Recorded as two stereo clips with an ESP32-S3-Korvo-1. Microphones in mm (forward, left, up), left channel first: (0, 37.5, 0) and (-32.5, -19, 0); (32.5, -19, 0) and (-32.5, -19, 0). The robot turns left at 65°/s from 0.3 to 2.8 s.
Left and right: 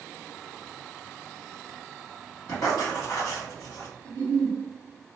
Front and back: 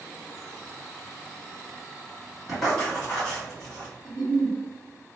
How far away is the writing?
About 2.0 m.